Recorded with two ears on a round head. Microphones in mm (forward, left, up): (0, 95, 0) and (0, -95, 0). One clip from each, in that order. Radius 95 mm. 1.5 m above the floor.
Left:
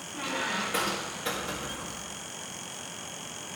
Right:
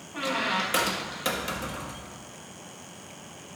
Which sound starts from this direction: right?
A squeak, at 0.1 s.